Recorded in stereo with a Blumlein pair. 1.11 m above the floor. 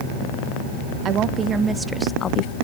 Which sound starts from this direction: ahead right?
A woman speaking, at 1.1 s.